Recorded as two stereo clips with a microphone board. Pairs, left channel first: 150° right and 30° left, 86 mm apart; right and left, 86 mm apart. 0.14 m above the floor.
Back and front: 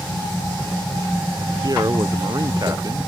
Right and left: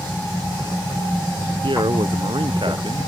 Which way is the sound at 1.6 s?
75° left.